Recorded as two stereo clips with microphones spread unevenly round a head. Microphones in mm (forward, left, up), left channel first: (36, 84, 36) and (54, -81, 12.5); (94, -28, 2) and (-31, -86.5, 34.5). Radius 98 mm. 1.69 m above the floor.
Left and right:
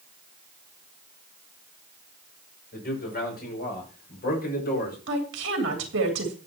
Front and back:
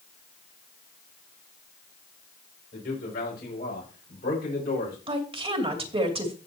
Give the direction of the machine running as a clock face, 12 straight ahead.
No machine running in this recording.